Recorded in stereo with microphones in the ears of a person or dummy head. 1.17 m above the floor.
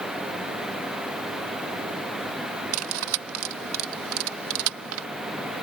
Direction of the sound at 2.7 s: 75° right (ahead or behind).